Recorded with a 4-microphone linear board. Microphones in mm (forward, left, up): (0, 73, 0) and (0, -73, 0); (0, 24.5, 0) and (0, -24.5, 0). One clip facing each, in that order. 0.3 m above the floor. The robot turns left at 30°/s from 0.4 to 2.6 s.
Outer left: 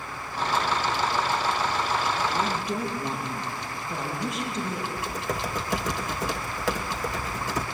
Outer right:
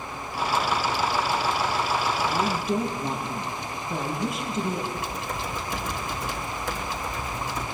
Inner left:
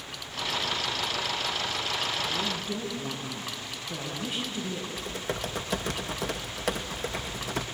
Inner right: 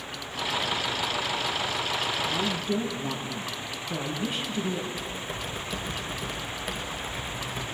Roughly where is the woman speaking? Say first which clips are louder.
Outer right 2 dB, inner right 3 dB; centre.